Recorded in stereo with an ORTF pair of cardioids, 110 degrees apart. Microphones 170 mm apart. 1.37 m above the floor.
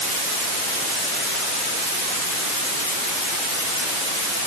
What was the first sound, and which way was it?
Only background noise.